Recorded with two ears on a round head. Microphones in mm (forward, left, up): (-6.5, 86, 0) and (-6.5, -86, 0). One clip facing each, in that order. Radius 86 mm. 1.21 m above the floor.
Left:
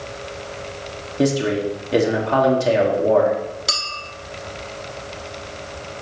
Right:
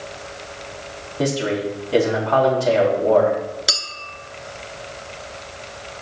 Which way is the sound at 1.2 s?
25° left (ahead or behind).